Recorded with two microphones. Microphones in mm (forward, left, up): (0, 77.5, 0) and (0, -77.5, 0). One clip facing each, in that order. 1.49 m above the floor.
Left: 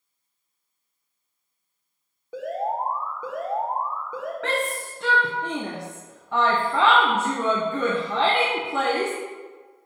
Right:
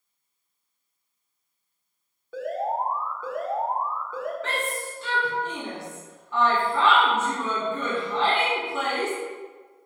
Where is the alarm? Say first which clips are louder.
Even; 15° left (ahead or behind), 1.3 m.